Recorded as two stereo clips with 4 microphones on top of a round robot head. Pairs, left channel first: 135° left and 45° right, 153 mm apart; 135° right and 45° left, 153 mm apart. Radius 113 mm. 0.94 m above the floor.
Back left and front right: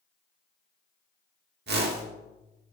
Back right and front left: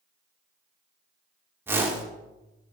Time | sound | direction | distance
1.7 | a whoosh | 30° right | 2.5 m